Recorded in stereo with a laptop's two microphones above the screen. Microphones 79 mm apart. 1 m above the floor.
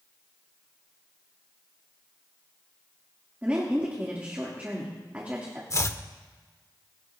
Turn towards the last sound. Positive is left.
turn(degrees=35)  # may be behind; listen again after turning